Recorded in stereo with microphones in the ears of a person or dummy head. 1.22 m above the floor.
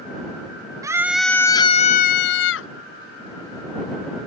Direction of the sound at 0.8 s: 15° right (ahead or behind).